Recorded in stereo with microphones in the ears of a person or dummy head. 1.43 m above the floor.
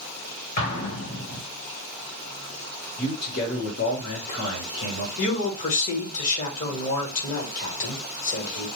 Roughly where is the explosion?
Left.